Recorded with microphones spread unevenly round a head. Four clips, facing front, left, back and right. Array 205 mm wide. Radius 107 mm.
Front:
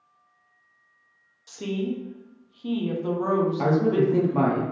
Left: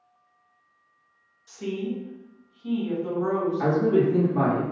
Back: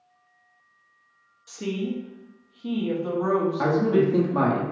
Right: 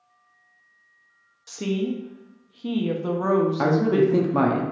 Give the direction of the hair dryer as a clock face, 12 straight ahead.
I don't hear a hair dryer.